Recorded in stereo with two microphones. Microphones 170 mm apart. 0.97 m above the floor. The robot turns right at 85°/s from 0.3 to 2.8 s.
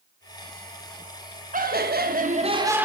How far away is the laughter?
About 0.9 m.